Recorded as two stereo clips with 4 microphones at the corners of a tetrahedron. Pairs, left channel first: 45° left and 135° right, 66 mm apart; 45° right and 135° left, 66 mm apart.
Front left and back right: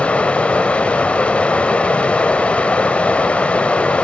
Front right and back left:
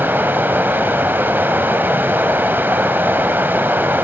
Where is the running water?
105° left, 0.9 m.